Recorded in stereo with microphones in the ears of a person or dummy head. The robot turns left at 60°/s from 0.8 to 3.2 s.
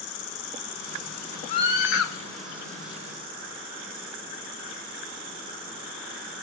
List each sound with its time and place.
0.0 s an insect: 105° left, 3 m; by 6.5 s 40° right, 3 m
1.5 s a scream: 140° left, 6 m; by 2.1 s 100° left, 6 m